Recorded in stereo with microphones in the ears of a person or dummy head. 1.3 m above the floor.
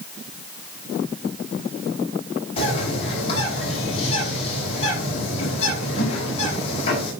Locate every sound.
2.6 s a bird: 40° left (ahead or behind), 8 m